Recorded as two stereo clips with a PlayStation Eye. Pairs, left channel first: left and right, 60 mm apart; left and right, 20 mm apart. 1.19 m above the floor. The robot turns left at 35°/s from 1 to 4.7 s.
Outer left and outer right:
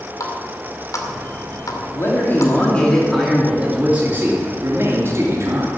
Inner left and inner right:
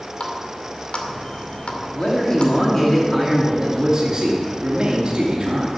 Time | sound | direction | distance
0.2 | a running tap | 65° left (ahead or behind) | 2 m
1.9 | a man speaking | 45° left | 3 m